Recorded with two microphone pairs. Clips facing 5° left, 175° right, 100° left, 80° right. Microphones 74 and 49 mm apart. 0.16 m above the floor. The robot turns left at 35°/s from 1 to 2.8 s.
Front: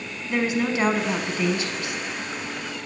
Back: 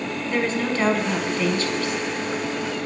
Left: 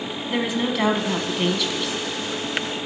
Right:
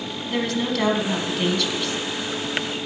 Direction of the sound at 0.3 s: 60° left.